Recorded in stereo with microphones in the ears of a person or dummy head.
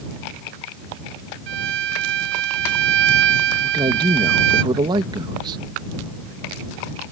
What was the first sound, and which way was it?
A violin, 60° right (ahead or behind).